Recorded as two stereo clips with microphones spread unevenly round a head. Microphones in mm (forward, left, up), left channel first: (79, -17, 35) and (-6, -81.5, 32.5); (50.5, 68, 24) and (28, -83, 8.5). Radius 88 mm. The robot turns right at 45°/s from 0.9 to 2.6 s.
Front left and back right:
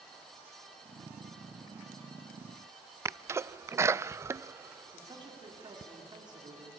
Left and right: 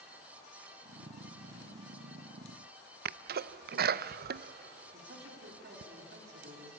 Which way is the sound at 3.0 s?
75° right.